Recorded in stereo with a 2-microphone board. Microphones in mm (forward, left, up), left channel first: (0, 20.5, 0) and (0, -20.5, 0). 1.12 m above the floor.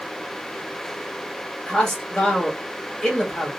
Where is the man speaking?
20° left (ahead or behind), 2.5 m.